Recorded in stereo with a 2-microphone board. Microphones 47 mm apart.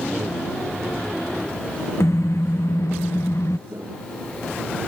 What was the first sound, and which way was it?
A car horn, 80° left.